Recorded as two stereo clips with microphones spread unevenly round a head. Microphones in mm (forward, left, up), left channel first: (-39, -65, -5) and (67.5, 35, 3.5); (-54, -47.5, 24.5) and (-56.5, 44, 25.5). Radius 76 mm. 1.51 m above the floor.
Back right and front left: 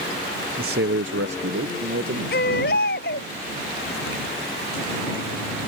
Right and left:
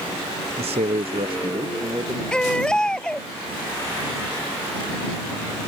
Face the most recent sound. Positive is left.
turn(degrees=-170)